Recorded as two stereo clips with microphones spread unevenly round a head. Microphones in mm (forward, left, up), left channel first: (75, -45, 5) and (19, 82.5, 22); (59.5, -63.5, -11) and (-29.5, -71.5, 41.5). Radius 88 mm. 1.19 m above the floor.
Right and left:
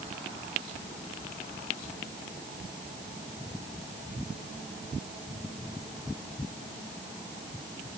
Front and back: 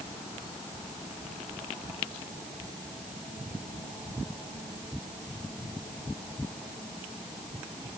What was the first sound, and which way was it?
Only background noise.